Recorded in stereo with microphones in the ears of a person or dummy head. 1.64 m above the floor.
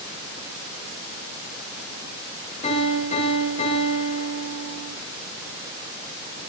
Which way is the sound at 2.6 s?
35° left (ahead or behind).